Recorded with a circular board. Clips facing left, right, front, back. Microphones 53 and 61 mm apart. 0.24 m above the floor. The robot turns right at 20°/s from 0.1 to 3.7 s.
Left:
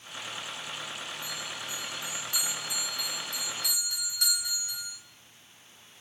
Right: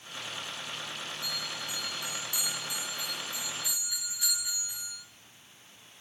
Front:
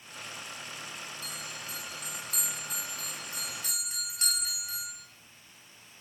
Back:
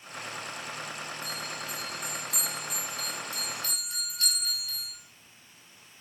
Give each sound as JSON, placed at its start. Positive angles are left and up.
{"t": 1.2, "sound": "a bell", "azimuth_deg": 25, "distance_m": 4.5}